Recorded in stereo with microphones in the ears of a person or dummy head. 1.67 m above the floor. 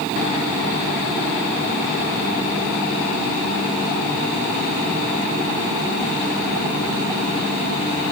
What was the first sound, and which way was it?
Only background noise.